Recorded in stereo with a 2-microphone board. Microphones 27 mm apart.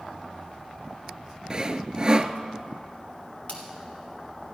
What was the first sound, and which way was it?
Sawing, 30° right (ahead or behind).